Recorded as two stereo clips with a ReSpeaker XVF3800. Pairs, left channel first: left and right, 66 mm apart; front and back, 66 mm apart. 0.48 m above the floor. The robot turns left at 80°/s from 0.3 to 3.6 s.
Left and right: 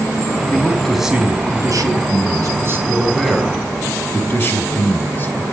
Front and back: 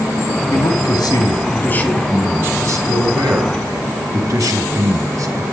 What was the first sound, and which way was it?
A man speaking, 35° left.